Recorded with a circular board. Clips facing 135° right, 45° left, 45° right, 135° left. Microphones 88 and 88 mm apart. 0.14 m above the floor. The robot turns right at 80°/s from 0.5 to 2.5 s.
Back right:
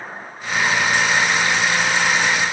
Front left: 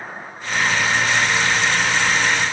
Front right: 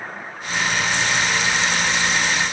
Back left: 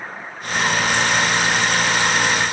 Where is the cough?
I don't hear a cough.